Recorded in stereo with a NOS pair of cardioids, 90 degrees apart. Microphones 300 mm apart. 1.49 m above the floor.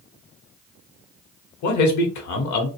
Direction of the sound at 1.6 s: 70° left.